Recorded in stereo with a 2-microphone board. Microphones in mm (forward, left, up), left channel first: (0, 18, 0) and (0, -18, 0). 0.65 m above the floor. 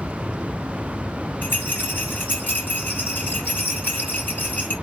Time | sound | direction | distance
1.4 | a rattle | 70° left (ahead or behind) | 3 m